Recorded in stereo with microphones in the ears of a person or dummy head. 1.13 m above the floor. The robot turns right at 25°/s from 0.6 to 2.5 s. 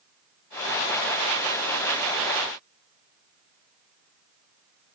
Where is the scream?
No scream in this recording.